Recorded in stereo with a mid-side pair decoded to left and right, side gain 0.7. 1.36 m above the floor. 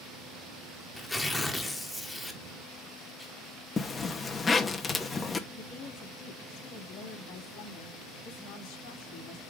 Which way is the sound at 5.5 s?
65° left.